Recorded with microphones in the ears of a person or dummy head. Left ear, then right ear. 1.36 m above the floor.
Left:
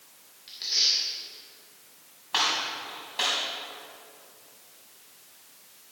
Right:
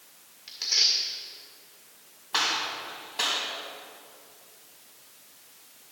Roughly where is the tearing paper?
Right.